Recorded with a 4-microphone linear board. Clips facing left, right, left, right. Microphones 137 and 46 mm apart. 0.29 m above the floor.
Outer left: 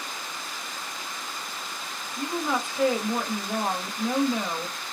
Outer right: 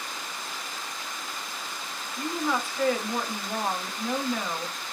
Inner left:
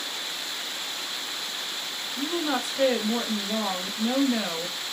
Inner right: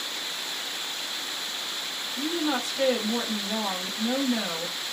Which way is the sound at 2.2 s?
15° left (ahead or behind).